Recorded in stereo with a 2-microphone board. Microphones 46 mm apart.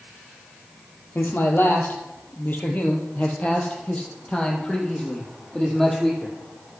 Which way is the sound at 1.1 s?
55° left (ahead or behind).